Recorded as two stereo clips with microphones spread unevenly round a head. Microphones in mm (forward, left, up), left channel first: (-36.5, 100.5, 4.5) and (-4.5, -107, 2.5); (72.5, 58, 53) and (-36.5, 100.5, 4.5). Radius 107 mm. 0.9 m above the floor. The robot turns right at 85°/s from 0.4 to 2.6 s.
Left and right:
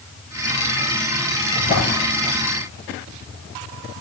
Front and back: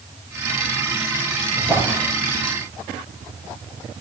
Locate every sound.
1.6 s a drawer: 25° left, 5.5 m; by 2.0 s 65° left, 5.5 m